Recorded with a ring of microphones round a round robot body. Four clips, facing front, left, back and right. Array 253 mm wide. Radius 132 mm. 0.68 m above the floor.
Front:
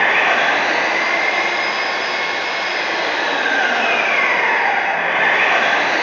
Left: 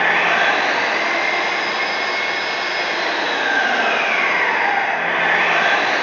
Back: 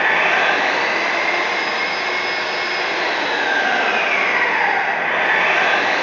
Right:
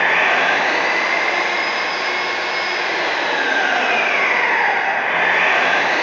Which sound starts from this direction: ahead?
An engine running, at 0.0 s.